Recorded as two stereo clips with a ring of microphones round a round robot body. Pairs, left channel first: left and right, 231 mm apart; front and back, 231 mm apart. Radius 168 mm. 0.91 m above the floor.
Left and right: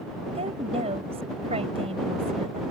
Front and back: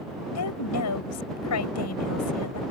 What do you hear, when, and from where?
0.3 s a woman speaking: 15° right